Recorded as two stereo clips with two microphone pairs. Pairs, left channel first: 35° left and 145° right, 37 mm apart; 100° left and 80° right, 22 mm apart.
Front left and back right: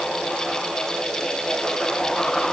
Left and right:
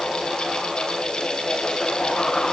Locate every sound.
Only background noise.